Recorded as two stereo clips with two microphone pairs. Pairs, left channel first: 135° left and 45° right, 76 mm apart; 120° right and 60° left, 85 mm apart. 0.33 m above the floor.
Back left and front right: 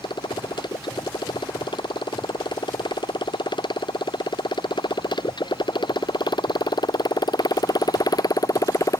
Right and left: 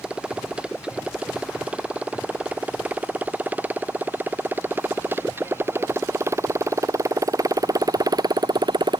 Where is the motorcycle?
140° left; by 9.0 s 85° left.